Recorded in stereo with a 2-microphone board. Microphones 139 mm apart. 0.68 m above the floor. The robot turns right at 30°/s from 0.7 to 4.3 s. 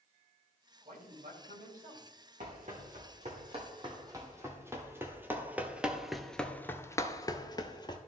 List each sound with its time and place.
0.8 s a man speaking: 115° right, 2.5 m; by 2.1 s 80° right, 2.5 m
2.4 s running footsteps: 75° right (ahead or behind), 2.5 m; by 8.0 s 30° left (ahead or behind), 1.1 m